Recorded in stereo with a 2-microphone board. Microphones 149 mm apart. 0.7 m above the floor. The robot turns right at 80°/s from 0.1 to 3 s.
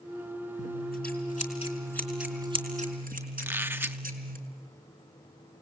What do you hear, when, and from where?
0.6 s scissors: 60° left, 4.5 m; by 4.4 s 110° right, 4.5 m
3.4 s a squeak: 15° right (ahead or behind), 0.9 m